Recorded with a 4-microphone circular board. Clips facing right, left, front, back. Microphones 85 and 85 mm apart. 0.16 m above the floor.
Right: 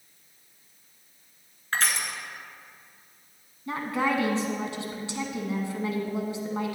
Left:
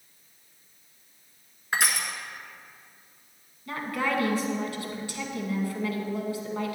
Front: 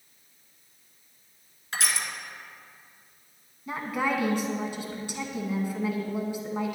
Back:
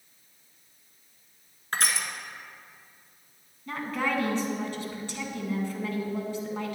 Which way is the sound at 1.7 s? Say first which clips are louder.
Left 1 dB, back 2 dB; 165° left.